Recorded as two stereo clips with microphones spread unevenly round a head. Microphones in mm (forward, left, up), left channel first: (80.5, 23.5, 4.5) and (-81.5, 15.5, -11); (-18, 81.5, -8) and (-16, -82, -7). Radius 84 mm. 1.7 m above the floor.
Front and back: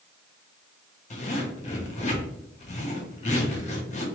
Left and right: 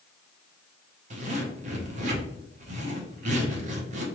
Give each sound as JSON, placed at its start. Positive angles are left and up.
{"t": 1.1, "sound": "a zipper", "azimuth_deg": -45, "distance_m": 0.7}